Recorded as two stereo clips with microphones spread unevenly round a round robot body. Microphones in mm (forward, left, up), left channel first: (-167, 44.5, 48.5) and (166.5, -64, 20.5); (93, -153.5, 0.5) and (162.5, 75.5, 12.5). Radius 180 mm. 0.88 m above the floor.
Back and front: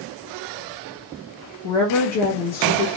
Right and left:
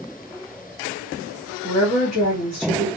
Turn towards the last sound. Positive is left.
turn(degrees=-170)